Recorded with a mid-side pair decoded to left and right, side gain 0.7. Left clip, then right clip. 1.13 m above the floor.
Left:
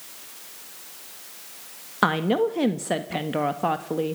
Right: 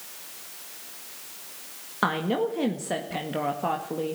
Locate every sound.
2.0 s a woman speaking: 25° left, 1.6 m